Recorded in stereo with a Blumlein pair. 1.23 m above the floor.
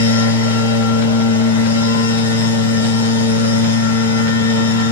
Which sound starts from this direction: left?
A machine running, at 0.0 s.